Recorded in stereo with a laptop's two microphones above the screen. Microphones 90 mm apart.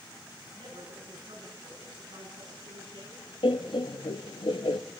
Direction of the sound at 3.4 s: 65° left (ahead or behind).